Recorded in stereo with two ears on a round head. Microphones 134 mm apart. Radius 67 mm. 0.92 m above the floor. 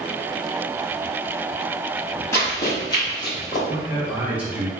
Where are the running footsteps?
20° left (ahead or behind), 1.5 m; by 3.6 s 40° left (ahead or behind), 2.0 m.